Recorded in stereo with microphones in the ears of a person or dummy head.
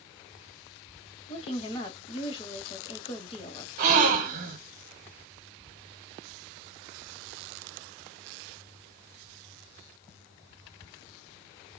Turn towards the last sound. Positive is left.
turn(degrees=-55)  # may be behind; listen again after turning